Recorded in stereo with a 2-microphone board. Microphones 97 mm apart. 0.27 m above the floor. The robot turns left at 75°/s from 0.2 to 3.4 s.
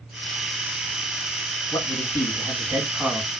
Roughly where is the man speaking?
Left.